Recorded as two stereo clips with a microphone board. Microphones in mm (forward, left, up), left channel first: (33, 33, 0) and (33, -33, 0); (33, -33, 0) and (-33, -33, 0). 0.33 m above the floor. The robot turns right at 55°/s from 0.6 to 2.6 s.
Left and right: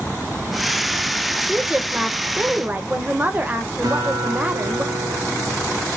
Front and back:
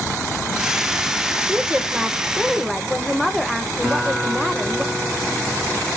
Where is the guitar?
90° right, 5 m.